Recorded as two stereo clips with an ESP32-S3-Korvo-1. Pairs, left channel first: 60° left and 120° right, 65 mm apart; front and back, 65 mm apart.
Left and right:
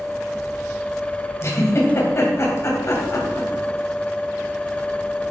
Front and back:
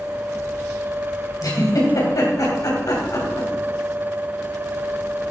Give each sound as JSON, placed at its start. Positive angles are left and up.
{"t": 1.4, "sound": "a giggle", "azimuth_deg": 15, "distance_m": 3.0}